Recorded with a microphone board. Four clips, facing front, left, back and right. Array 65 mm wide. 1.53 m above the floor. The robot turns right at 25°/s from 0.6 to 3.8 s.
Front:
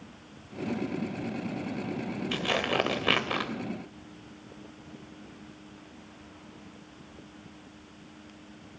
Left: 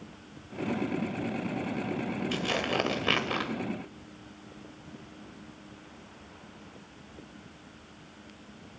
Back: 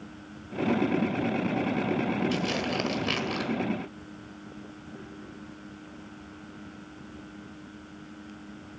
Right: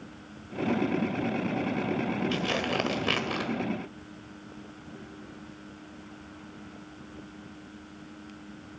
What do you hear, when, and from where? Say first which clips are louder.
2.3 s tearing paper: right 1 dB, front 1 dB; 10° right, 1.4 m; by 3.5 s 20° left, 1.4 m